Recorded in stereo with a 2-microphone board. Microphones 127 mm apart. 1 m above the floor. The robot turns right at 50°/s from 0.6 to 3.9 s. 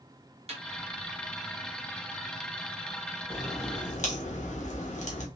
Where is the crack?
55° left, 1.1 m; by 5.3 s 85° left, 1.1 m.